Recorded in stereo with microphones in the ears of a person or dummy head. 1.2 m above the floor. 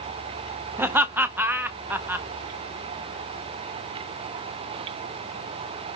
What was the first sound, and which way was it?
Laughter, 5° right (ahead or behind).